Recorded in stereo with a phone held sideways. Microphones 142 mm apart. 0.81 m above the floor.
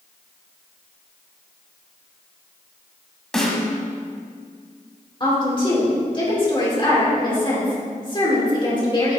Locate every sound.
3.3 s a snare drum: 5° left (ahead or behind), 1.4 m
5.2 s a woman speaking: 35° left (ahead or behind), 2.5 m